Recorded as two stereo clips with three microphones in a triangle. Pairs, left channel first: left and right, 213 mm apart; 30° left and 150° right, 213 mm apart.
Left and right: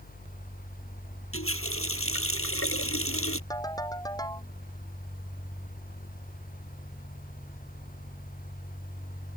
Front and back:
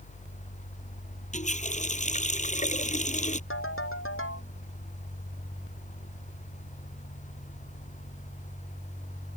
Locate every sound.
1.3 s a running tap: 85° left
3.5 s a ringtone: 15° left